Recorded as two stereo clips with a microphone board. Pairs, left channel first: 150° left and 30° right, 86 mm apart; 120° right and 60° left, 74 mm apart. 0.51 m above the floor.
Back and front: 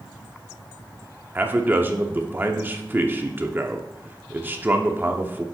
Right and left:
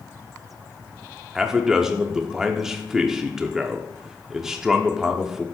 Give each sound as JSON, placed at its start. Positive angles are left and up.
{"t": 1.4, "sound": "a man speaking", "azimuth_deg": -10, "distance_m": 0.7}